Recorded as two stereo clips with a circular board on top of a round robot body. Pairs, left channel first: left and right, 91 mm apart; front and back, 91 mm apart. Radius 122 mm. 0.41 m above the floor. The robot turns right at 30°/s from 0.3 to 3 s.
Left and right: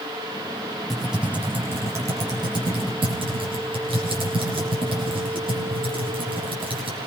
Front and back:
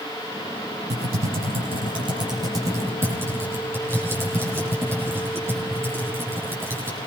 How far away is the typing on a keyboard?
About 9.5 m.